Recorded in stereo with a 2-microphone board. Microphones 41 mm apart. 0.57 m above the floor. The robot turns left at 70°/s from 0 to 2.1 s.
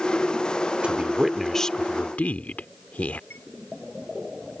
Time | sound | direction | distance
0.8 | a woman speaking | 140° right | ?
3.3 | a chime | 75° left (ahead or behind) | ?